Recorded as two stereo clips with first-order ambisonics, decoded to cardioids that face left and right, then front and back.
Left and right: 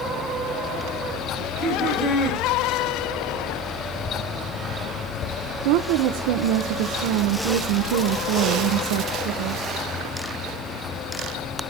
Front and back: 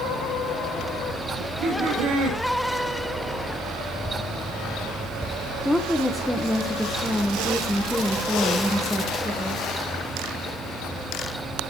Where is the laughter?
160° left, 9 m.